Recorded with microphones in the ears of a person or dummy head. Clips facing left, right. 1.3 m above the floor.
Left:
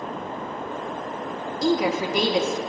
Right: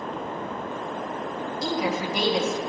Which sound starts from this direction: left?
A woman speaking, at 1.6 s.